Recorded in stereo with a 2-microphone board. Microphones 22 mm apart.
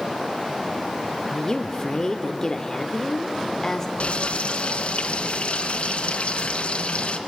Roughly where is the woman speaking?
Left.